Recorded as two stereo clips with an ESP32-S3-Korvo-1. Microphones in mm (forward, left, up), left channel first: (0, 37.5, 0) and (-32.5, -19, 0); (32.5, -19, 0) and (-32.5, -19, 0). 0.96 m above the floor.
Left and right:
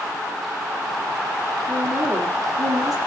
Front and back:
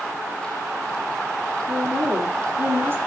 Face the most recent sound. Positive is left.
turn(degrees=-125)